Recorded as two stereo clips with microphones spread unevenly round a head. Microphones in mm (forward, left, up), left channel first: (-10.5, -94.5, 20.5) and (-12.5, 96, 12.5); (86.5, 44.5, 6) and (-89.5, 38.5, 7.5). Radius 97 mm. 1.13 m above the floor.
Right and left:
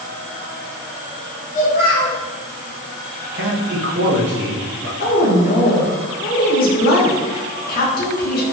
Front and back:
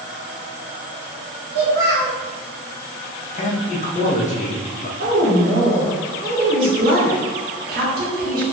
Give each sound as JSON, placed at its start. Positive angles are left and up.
{"t": 1.5, "sound": "a child speaking", "azimuth_deg": -135, "distance_m": 1.7}
{"t": 3.3, "sound": "a man speaking", "azimuth_deg": 50, "distance_m": 0.9}
{"t": 5.0, "sound": "a woman speaking", "azimuth_deg": -130, "distance_m": 1.2}